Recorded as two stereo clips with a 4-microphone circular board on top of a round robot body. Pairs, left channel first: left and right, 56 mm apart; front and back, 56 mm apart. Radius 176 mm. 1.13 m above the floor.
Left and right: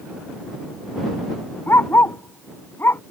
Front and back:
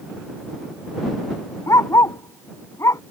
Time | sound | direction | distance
1.7 | a dog barking | 35° left | ?